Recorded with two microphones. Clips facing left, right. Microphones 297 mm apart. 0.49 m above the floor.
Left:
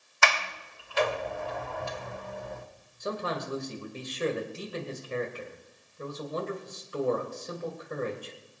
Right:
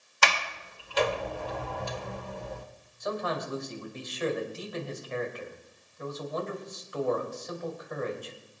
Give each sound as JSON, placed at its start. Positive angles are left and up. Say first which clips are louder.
{"t": 0.2, "sound": "a sliding door", "louder": "left 1 dB", "side_deg": -40, "distance_m": 1.5}
{"t": 3.0, "sound": "a man speaking", "louder": "right 1 dB", "side_deg": 35, "distance_m": 2.5}